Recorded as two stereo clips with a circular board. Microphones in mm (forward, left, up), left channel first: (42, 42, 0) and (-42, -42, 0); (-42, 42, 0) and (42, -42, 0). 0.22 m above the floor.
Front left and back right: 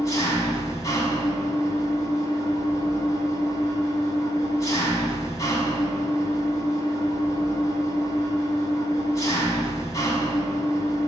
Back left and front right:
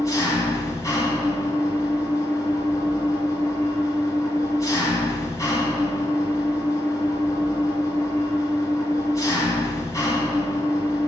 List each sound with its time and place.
0.0 s an engine running: 90° left, 1.6 m